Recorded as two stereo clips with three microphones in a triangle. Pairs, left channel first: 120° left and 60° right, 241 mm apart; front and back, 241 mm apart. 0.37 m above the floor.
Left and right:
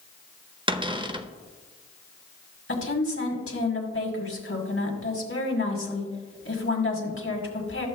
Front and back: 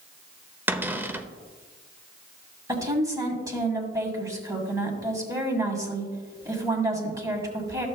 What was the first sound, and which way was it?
A cupboard door, 110° right.